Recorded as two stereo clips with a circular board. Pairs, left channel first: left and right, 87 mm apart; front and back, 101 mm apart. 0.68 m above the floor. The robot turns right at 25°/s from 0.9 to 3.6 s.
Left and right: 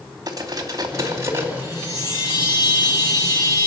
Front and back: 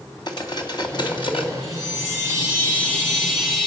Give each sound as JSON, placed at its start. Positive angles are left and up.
{"t": 0.3, "sound": "cutlery clinking", "azimuth_deg": -45, "distance_m": 2.5}
{"t": 1.6, "sound": "a chime", "azimuth_deg": 45, "distance_m": 9.5}